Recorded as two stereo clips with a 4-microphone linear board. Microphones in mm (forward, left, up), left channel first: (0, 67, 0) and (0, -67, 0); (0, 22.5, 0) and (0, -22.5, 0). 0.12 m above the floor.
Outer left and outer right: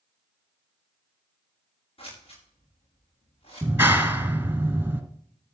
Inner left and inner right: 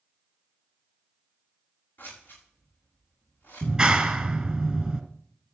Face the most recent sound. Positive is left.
turn(degrees=-15)  # may be behind; listen again after turning